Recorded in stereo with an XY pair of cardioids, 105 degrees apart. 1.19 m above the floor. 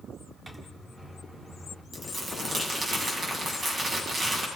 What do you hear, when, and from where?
0.5 s a microwave: 15° right, 3 m
1.9 s crumpling: 35° right, 7.5 m